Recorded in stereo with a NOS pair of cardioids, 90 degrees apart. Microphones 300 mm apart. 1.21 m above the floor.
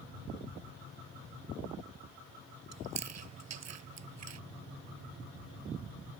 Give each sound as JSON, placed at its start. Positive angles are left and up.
{"t": 2.7, "sound": "chewing", "azimuth_deg": -55}